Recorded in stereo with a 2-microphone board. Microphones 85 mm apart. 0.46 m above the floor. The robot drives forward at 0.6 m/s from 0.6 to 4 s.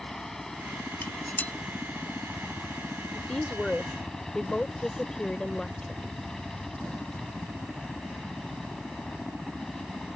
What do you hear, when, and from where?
0.0 s a helicopter: 5° left (ahead or behind)
1.0 s dishes clattering: 25° left (ahead or behind); by 1.5 s 20° left (ahead or behind)
3.1 s a woman speaking: 15° left (ahead or behind); by 6.2 s 10° left (ahead or behind)